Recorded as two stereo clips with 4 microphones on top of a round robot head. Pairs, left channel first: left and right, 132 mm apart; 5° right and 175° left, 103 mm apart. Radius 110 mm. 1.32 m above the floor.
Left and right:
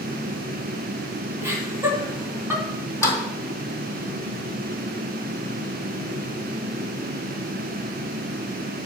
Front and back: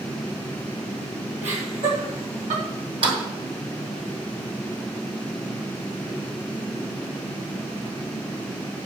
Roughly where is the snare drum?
Behind left.